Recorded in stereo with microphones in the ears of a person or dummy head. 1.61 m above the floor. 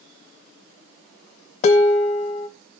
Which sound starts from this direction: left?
Dishes clattering, at 1.6 s.